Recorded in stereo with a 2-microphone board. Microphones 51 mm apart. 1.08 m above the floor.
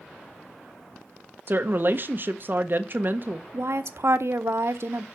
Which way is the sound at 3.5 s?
65° right (ahead or behind).